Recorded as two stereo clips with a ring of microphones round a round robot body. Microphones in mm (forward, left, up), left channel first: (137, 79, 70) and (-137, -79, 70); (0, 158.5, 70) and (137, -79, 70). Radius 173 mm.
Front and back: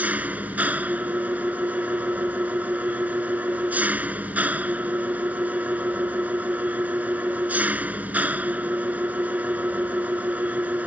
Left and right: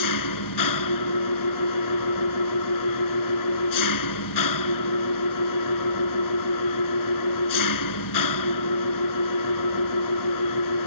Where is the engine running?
125° left.